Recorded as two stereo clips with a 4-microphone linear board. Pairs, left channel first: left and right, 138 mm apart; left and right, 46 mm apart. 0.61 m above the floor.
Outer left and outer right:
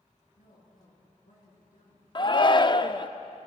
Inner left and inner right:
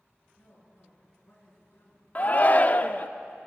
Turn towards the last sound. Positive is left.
turn(degrees=35)  # may be behind; listen again after turning